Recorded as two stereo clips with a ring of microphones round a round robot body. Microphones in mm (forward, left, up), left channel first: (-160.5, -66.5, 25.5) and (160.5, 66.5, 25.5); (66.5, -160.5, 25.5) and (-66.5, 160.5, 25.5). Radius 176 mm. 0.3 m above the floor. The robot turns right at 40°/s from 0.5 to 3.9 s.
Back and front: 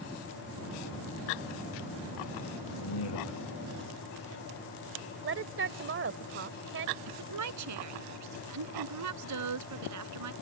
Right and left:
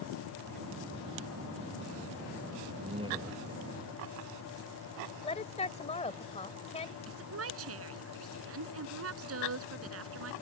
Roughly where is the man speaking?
Behind.